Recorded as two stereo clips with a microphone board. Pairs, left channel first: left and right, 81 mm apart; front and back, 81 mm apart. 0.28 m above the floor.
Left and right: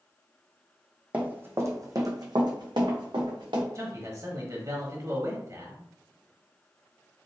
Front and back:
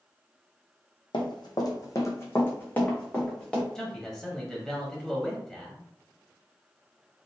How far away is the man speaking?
About 1.1 m.